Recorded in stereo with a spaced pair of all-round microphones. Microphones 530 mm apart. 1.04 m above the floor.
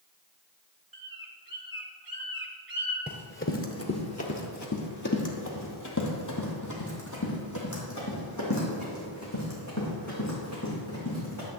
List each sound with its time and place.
0.9 s a bird: 40° right (ahead or behind), 1.0 m
3.1 s running footsteps: 20° left (ahead or behind), 1.1 m; by 11.5 s 30° left (ahead or behind), 4.5 m